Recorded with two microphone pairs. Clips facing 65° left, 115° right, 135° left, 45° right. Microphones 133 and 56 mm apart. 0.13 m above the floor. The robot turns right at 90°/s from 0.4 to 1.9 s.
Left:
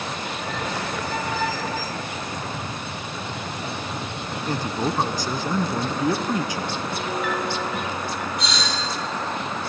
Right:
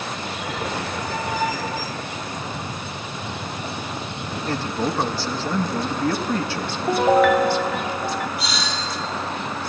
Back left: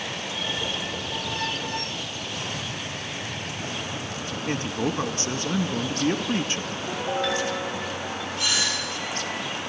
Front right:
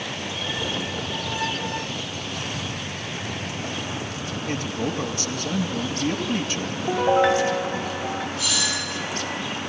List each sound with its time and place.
4.5 s a man speaking: 120° left, 1.3 m
6.9 s a piano: 105° right, 0.8 m
8.4 s a doorbell: 155° left, 5.5 m